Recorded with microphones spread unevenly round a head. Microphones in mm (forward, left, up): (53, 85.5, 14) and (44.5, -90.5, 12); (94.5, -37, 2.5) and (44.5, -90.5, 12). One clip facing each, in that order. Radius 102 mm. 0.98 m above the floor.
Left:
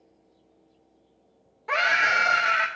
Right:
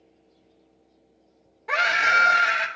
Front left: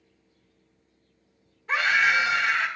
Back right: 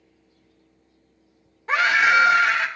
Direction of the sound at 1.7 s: Straight behind.